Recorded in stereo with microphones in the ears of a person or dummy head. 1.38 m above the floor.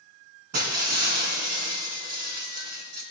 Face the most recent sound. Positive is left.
turn(degrees=-45)  # may be behind; listen again after turning